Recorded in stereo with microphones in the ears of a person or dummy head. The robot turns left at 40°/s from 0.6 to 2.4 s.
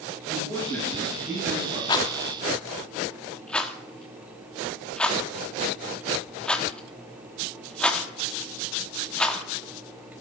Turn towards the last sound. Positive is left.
turn(degrees=5)  # may be behind; listen again after turning